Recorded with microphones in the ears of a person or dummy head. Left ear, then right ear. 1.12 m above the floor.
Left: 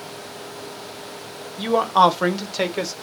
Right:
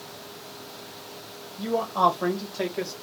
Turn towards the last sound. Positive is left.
turn(degrees=85)